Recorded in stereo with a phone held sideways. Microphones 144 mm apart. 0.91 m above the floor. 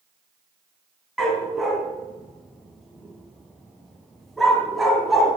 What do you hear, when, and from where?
1.2 s a dog barking: centre (ahead or behind), 2.5 m